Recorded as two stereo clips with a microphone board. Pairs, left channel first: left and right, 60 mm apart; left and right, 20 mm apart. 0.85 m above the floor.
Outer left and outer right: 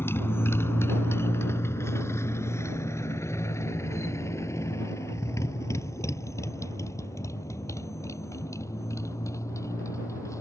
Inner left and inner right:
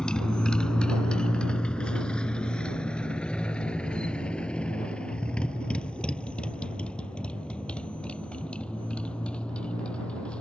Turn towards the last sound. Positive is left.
turn(degrees=60)  # may be behind; listen again after turning